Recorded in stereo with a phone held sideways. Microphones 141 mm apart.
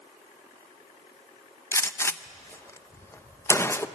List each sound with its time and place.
1.7 s a gunshot: 20° left (ahead or behind), 0.6 m